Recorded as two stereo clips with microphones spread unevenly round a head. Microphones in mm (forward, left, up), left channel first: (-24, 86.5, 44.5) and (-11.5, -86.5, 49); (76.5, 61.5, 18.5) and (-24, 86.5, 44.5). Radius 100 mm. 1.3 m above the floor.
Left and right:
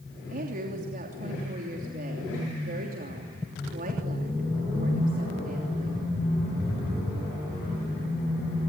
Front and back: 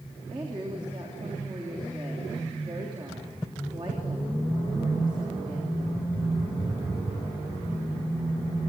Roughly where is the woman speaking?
Behind right.